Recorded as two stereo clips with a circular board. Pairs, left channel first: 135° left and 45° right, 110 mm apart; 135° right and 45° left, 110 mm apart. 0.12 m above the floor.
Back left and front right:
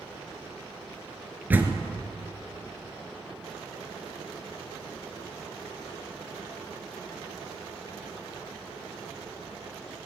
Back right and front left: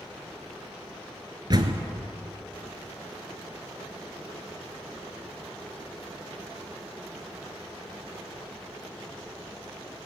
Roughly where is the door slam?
Ahead.